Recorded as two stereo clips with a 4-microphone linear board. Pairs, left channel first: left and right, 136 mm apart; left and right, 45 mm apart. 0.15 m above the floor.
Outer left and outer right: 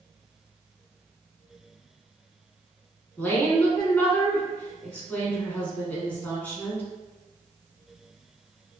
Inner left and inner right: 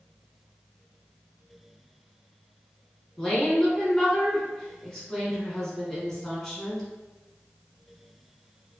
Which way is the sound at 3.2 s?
10° left (ahead or behind).